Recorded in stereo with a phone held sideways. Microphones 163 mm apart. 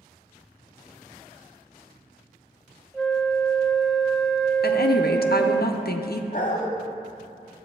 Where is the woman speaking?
75° left (ahead or behind), 0.6 m.